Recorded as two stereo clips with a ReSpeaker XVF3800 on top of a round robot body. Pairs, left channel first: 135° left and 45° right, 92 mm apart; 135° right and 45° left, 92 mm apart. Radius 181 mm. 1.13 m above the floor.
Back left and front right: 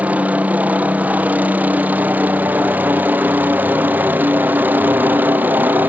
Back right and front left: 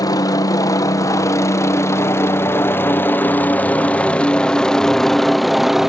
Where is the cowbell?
No cowbell in this recording.